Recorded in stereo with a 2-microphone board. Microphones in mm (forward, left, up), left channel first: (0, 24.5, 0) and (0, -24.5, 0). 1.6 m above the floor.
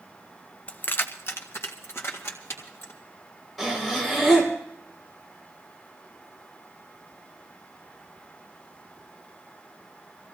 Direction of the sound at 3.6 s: Centre (ahead or behind).